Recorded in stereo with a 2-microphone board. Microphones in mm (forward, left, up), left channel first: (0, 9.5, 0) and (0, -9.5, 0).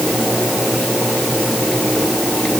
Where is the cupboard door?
No cupboard door in this recording.